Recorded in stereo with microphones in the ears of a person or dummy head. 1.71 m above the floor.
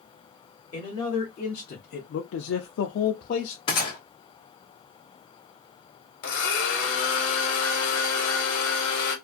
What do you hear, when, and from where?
0.7 s a man speaking: 20° left (ahead or behind), 1.1 m; by 3.6 s 45° left (ahead or behind), 0.8 m
3.7 s a gunshot: 25° left (ahead or behind), 0.8 m
6.2 s a blender: 70° left (ahead or behind), 1.1 m